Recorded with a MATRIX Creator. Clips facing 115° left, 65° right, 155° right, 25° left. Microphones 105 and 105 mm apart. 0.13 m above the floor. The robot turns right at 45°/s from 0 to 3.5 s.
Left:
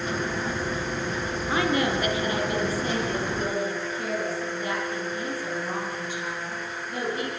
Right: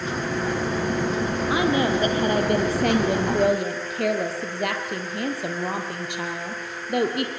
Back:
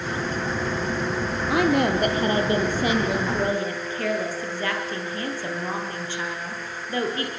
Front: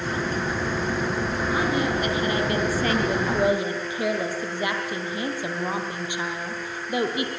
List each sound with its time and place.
1.5 s a woman speaking: 145° right, 4 m; by 7.3 s 55° right, 4 m